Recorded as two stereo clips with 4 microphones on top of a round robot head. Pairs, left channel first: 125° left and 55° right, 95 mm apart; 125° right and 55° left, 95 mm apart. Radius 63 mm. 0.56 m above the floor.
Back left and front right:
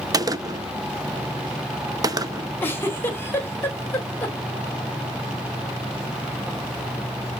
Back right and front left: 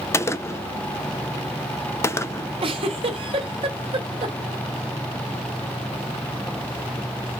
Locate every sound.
0.1 s a gunshot: 80° right, 0.5 m
2.6 s a giggle: 60° left, 1.2 m